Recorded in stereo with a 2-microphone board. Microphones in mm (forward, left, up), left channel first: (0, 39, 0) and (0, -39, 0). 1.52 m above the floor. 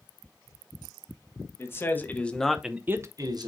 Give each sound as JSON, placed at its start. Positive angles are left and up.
{"t": 1.6, "sound": "a man speaking", "side_deg": 35, "distance_m": 1.5}